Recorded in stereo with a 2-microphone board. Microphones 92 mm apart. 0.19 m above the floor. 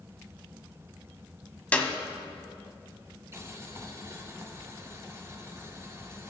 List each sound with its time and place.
1.7 s a clap: 15° left (ahead or behind), 0.8 m
3.3 s boiling: 30° right (ahead or behind), 1.0 m